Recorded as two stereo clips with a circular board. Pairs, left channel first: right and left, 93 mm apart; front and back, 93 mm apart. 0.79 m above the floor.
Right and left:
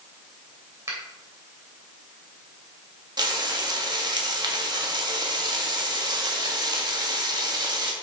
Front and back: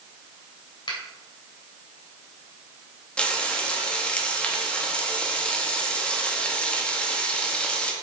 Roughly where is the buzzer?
No buzzer in this recording.